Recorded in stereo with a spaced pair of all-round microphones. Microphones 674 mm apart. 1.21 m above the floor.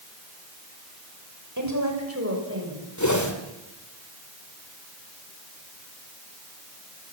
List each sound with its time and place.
1.6 s a woman speaking: 25° right (ahead or behind), 6 m; by 2.8 s 15° right (ahead or behind), 7.5 m
3.0 s a whoosh: 25° left (ahead or behind), 3 m